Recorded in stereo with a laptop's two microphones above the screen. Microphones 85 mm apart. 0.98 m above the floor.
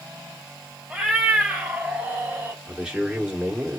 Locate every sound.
0.9 s a cat meowing: 5° right (ahead or behind), 1.8 m; by 2.6 s 25° right (ahead or behind), 1.2 m
2.7 s a man speaking: 10° right (ahead or behind), 1.6 m